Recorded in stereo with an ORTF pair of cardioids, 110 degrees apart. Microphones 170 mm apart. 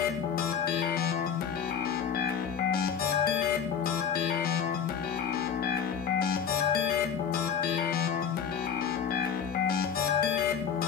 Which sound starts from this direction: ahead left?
A machine running, at 0.0 s.